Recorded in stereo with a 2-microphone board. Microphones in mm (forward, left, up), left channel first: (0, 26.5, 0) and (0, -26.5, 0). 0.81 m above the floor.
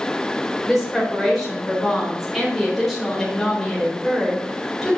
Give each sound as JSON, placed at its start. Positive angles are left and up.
{"t": 0.7, "sound": "a woman speaking", "side_deg": 0, "distance_m": 4.0}